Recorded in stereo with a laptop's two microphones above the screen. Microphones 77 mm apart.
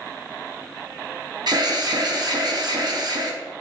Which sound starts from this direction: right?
An alarm, at 1.5 s.